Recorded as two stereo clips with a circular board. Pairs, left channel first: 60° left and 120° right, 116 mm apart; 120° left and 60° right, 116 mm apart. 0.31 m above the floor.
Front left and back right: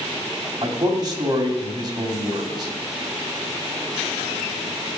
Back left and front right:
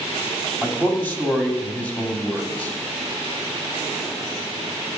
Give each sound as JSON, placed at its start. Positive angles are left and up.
{"t": 0.6, "sound": "a man speaking", "azimuth_deg": -165, "distance_m": 2.5}